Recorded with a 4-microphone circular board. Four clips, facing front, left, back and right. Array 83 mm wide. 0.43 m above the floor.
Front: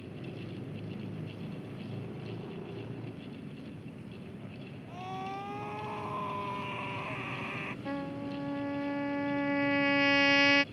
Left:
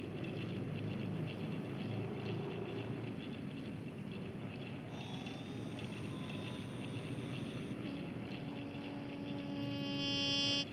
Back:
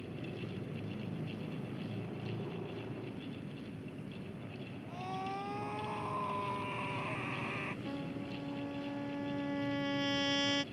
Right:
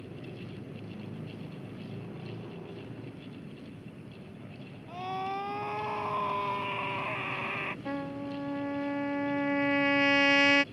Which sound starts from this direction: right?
A scream, at 4.9 s.